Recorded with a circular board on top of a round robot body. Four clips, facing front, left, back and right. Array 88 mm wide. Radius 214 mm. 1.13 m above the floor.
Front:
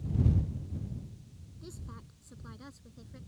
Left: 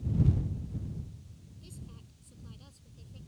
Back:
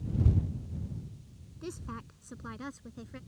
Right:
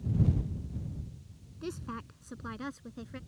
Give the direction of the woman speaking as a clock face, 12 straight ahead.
4 o'clock.